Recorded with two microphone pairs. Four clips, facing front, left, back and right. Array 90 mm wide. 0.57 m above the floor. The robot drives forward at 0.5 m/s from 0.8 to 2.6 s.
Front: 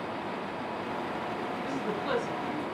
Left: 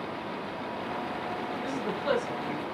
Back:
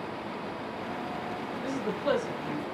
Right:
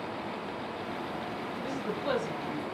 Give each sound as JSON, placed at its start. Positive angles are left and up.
{"t": 1.6, "sound": "a woman speaking", "azimuth_deg": 130, "distance_m": 1.4}